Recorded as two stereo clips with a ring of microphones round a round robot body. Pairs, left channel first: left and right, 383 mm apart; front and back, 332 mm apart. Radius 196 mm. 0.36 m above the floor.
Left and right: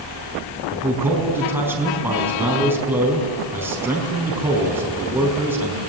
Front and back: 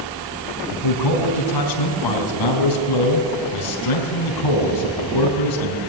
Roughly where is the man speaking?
Ahead.